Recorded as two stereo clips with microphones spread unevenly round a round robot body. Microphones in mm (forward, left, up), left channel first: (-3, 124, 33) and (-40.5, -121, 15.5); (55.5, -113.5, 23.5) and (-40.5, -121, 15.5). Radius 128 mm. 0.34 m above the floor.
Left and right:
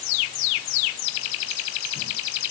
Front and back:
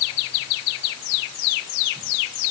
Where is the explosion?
No explosion in this recording.